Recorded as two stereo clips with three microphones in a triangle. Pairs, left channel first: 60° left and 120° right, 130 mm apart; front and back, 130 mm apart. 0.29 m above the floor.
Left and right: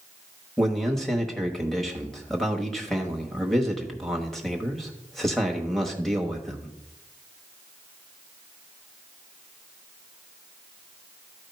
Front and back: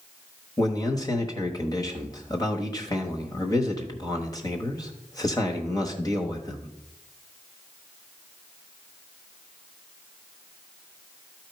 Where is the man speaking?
25° right, 1.2 m.